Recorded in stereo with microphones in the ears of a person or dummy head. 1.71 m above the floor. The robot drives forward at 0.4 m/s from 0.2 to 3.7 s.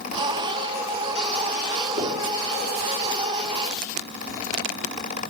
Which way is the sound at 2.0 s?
25° right (ahead or behind).